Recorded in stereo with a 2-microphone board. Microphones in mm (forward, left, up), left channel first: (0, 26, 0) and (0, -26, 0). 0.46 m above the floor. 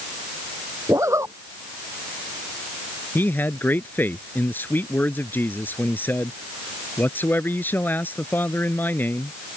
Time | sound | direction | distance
0.9 | a zipper | 70° right (ahead or behind) | ?
3.1 | a man speaking | 40° left (ahead or behind) | ?